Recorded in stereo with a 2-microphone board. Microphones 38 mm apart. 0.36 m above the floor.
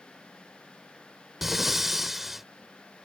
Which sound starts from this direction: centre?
Breathing, at 1.4 s.